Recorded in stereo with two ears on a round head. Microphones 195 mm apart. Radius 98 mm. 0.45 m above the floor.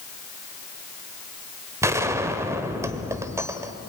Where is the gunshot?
15° right (ahead or behind), 1.2 m.